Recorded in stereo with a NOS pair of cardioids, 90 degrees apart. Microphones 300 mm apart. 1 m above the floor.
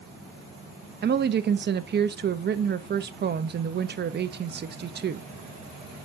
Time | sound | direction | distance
1.0 | a woman speaking | 35° right | 0.9 m